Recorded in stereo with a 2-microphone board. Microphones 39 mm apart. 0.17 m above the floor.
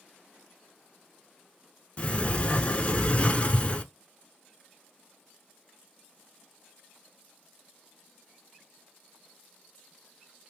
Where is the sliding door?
30° left (ahead or behind), 0.6 m.